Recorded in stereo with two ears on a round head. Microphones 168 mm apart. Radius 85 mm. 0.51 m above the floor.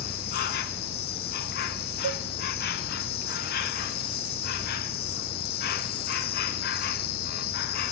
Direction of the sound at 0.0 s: 55° left (ahead or behind).